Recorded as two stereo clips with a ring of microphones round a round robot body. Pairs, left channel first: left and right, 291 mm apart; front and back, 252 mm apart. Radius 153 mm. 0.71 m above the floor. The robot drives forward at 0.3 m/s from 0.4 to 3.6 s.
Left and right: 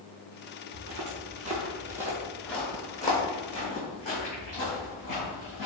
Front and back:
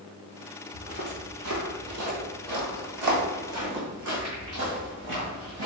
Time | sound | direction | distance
0.7 | footsteps | 115° right | 1.0 m